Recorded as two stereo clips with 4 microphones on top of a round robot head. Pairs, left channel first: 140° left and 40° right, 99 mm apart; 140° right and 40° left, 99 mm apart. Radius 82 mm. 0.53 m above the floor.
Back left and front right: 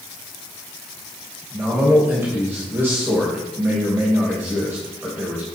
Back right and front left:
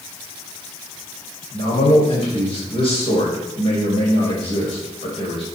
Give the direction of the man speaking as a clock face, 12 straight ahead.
4 o'clock.